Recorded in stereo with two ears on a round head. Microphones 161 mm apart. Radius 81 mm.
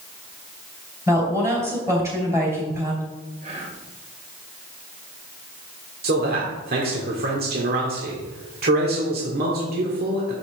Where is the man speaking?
60° right (ahead or behind), 1.8 m.